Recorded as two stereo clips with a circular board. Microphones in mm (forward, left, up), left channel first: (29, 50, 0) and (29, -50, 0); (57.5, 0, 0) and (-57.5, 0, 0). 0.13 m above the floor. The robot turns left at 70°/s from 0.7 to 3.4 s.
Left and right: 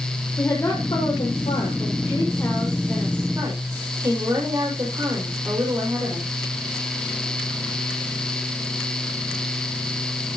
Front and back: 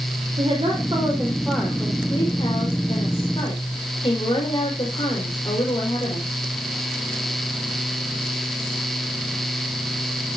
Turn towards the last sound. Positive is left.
turn(degrees=-40)